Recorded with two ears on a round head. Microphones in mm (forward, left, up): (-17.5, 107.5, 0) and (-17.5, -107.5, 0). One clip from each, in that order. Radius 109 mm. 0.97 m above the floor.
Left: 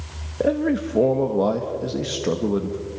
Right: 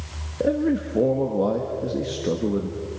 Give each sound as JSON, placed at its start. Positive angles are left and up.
{"t": 0.4, "sound": "a man speaking", "side_deg": 25, "distance_m": 1.1}